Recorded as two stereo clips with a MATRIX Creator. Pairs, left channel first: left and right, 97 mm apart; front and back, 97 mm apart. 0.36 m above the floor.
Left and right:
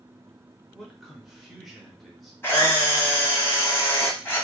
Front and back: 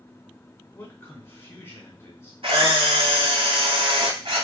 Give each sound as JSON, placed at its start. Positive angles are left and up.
{"t": 0.7, "sound": "a man speaking", "azimuth_deg": 0, "distance_m": 1.0}
{"t": 2.4, "sound": "a camera shutter", "azimuth_deg": 155, "distance_m": 1.0}